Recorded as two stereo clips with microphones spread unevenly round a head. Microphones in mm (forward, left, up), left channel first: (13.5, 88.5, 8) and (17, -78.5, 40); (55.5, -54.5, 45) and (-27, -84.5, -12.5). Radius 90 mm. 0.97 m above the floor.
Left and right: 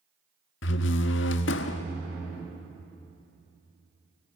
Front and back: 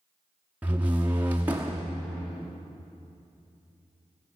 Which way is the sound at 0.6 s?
115° left.